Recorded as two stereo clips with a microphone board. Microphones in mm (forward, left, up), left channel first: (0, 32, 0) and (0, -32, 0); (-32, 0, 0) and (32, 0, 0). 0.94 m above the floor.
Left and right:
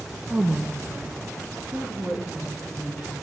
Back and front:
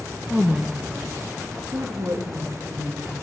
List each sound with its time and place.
0.3 s a woman speaking: 75° right, 0.7 m; by 3.1 s 30° right, 2 m